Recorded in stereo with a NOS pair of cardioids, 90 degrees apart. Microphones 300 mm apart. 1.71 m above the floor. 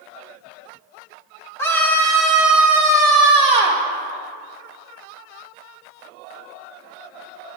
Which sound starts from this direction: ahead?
A scream, at 1.6 s.